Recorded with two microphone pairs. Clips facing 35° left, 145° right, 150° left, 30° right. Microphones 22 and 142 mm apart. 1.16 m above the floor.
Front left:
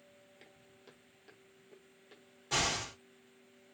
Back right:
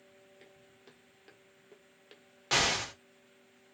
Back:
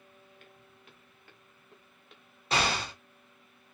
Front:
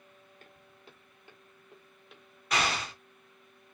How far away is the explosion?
About 1.2 m.